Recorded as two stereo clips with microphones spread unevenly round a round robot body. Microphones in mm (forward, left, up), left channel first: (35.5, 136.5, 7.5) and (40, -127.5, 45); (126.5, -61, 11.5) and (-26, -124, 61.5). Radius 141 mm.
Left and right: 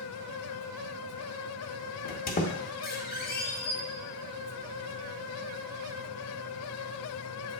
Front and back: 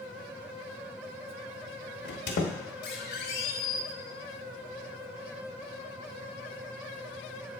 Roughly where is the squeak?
Ahead left.